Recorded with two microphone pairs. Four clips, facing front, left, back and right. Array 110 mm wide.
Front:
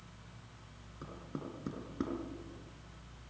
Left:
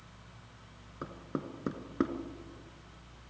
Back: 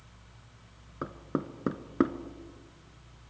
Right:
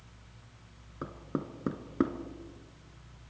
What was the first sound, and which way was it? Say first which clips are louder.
Knocking: right 2 dB, back 10 dB; straight behind.